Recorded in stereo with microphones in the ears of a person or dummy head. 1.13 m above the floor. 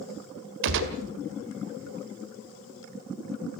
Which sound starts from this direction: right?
A gunshot, at 0.6 s.